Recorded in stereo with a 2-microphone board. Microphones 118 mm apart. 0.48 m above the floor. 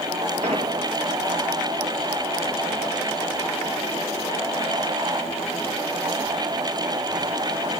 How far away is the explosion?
About 2 m.